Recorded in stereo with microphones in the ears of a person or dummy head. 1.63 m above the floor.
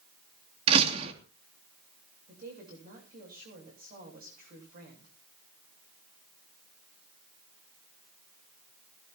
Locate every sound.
0.7 s a door slam: 35° right (ahead or behind), 2.5 m
2.3 s a woman speaking: 50° right (ahead or behind), 8 m